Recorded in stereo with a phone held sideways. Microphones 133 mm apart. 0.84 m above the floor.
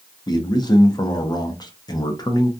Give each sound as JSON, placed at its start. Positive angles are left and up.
{"t": 0.3, "sound": "a man speaking", "side_deg": 35, "distance_m": 0.6}